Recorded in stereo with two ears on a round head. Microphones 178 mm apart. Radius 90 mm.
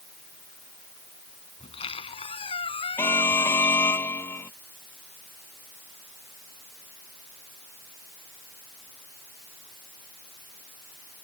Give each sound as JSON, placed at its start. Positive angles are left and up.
{"t": 1.6, "sound": "a squeak", "side_deg": 30}
{"t": 3.0, "sound": "an alarm", "side_deg": 10}